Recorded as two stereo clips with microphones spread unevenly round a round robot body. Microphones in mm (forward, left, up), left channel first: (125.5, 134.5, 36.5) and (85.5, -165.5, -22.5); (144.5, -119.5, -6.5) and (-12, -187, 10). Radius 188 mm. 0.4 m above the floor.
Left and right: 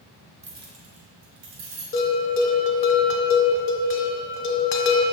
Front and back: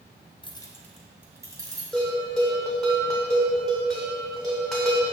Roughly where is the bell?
Left.